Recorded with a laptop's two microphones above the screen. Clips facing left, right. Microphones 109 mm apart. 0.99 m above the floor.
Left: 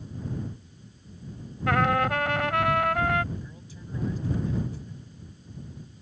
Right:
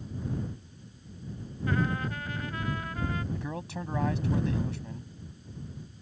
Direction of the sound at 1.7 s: 80° left.